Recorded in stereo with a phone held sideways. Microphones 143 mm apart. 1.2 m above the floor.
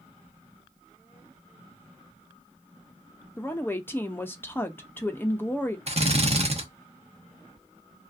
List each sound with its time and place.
3.4 s a woman speaking: 15° left (ahead or behind), 0.5 m
5.9 s a drill: 45° right (ahead or behind), 0.8 m